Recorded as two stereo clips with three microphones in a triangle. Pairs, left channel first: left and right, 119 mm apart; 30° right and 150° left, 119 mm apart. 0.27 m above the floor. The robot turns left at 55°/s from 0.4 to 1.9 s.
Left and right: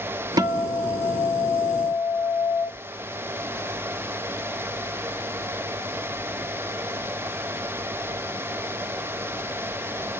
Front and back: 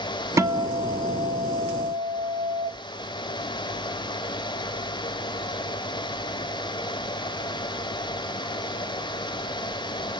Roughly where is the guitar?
Behind right.